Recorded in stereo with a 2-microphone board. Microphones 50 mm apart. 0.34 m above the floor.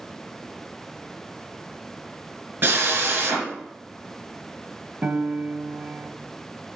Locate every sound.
2.6 s a drill: 55° right (ahead or behind), 3.5 m
5.0 s a piano: 40° right (ahead or behind), 0.9 m